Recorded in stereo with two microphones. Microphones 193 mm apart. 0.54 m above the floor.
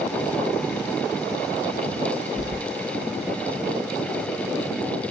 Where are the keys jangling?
30° right (ahead or behind), 1.6 m.